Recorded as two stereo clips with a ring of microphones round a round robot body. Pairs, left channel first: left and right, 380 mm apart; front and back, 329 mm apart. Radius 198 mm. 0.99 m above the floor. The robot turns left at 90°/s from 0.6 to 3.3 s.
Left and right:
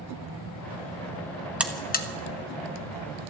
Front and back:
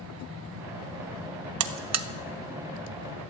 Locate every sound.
1.6 s a buzzer: 175° right, 0.9 m; by 2.1 s 140° left, 0.9 m